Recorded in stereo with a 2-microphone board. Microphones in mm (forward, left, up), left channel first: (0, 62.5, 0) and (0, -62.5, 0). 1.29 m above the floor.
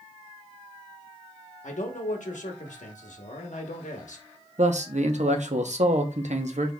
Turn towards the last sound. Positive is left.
turn(degrees=-70)  # may be behind; listen again after turning